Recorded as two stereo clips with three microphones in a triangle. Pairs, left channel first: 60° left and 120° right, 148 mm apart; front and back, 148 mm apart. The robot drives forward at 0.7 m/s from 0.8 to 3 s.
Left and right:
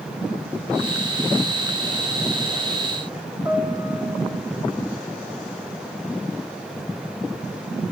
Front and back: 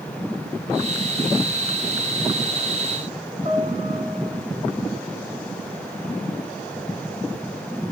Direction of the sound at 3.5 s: 175° left.